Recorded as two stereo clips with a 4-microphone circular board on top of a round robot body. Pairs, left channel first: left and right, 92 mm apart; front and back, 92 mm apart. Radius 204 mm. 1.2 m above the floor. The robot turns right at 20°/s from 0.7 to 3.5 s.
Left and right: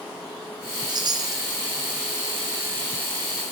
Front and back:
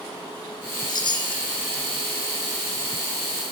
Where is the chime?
45° right, 1.6 m; by 1.4 s 35° right, 1.6 m.